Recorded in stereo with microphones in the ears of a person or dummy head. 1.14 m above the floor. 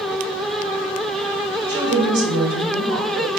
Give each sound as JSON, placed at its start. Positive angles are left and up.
{"t": 1.7, "sound": "a woman speaking", "side_deg": -60, "distance_m": 2.0}